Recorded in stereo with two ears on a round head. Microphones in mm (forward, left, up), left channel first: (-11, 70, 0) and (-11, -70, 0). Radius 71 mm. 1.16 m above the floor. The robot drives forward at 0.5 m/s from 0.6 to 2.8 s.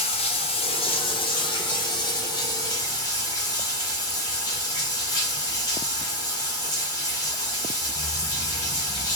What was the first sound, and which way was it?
Running water, 40° left (ahead or behind).